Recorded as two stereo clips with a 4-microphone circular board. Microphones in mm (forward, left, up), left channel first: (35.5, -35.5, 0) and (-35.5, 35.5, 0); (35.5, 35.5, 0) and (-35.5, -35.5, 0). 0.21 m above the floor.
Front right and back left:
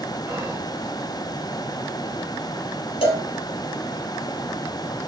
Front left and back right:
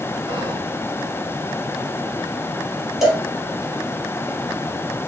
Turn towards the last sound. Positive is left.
turn(degrees=-50)